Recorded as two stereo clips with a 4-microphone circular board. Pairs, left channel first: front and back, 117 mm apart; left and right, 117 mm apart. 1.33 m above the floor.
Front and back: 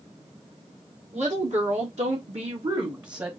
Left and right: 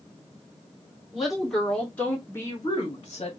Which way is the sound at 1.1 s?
Straight behind.